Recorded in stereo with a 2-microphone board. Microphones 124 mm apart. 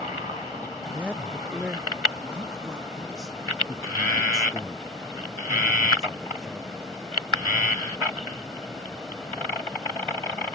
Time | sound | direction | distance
0.9 | a man speaking | 10° right (ahead or behind) | ?